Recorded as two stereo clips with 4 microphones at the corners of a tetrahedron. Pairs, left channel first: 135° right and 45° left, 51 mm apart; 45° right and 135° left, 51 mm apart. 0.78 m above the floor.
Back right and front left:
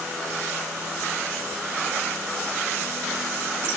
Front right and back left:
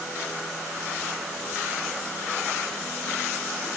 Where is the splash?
No splash in this recording.